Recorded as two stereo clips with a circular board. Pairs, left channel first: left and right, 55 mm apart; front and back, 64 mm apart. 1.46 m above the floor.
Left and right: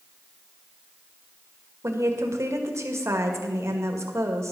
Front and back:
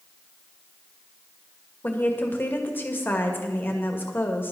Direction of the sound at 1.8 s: 60° right.